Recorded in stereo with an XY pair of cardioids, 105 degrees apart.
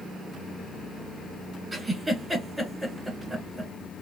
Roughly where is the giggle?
Ahead.